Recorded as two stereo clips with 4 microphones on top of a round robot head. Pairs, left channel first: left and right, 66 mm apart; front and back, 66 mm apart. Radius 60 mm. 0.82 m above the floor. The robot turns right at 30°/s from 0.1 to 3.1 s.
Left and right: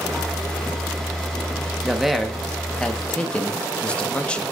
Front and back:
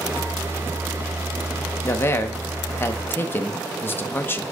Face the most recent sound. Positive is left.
turn(degrees=30)